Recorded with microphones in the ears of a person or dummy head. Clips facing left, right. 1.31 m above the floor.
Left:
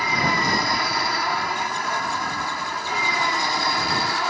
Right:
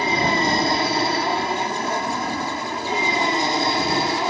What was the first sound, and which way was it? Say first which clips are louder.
An aircraft: right 4 dB; 30° right (ahead or behind).